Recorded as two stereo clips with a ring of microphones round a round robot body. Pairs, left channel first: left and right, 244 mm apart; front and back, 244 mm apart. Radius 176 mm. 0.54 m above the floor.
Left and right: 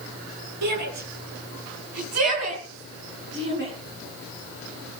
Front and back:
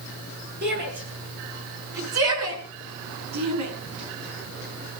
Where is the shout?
120° right, 8 m; by 3.7 s 155° right, 7 m.